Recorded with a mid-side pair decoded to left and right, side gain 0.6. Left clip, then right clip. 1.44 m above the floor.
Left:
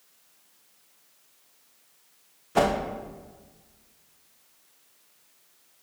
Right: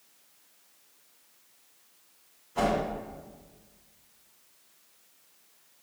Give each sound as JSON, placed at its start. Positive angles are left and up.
{"t": 2.5, "sound": "a whoosh", "azimuth_deg": 70, "distance_m": 1.1}